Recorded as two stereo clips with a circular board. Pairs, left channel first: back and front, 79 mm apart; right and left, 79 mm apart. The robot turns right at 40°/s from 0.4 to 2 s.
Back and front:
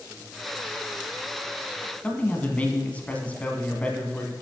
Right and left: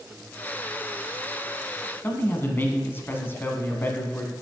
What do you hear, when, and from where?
2.0 s a man speaking: 125° right, 1.3 m